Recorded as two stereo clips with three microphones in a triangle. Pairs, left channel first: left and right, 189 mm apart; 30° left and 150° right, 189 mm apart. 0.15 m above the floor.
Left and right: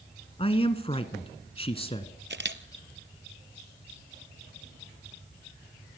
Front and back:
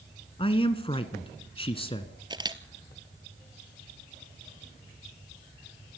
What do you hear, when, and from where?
0.4 s a man speaking: 60° left, 1.3 m
2.3 s a camera shutter: 85° right, 1.1 m